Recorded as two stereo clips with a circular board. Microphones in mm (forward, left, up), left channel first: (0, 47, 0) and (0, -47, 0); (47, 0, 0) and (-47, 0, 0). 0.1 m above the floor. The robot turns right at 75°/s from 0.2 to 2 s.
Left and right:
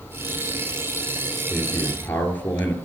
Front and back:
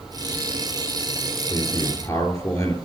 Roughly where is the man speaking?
Ahead.